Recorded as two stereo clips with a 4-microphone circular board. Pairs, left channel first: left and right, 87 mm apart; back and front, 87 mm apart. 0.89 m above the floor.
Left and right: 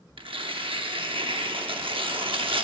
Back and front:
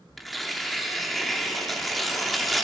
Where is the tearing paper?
90° right, 0.8 m.